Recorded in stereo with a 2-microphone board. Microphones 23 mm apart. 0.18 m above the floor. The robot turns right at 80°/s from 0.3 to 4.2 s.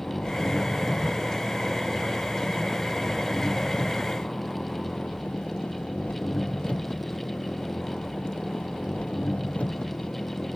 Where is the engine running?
125° left; by 10.6 s 75° left.